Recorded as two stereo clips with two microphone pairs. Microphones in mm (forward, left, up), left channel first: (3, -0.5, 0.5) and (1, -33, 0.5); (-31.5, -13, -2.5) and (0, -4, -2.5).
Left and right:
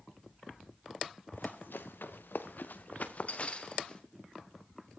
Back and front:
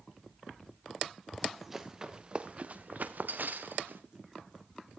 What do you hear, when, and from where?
1.3 s running footsteps: 105° left, 2 m; by 4.0 s 25° left, 2.5 m